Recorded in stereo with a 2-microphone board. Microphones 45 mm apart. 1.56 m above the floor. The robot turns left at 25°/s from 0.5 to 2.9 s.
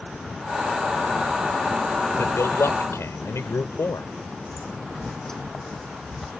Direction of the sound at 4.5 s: 15° left (ahead or behind).